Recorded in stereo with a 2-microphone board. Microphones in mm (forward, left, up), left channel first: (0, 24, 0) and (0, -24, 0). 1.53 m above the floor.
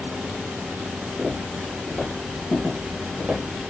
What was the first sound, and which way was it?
Footsteps, centre (ahead or behind).